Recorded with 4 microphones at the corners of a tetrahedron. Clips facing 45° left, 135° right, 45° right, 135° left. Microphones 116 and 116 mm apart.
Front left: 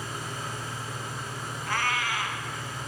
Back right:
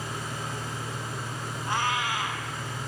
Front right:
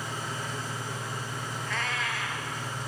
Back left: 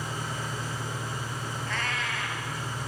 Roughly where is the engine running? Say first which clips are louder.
Back right 1 dB, back left 1 dB; behind right.